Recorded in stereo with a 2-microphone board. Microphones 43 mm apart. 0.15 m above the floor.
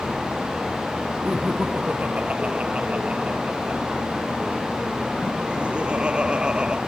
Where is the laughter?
30° right (ahead or behind); by 6.8 s 20° right (ahead or behind).